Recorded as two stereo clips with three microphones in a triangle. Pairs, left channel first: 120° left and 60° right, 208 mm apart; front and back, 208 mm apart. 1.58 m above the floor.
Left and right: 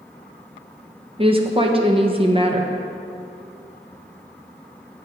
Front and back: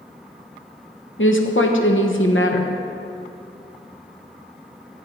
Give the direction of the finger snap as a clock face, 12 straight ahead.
I don't hear a finger snap.